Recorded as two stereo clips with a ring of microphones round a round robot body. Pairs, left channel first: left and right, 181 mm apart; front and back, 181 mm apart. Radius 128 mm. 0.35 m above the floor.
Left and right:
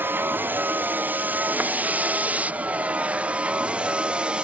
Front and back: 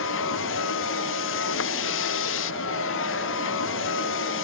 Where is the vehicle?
10° right; by 4.4 s 5° right.